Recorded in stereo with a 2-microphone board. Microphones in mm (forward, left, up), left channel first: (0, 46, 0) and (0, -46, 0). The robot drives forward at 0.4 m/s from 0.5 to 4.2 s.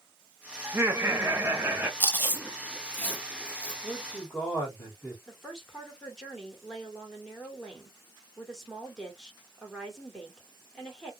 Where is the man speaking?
10° left (ahead or behind), 1.6 m.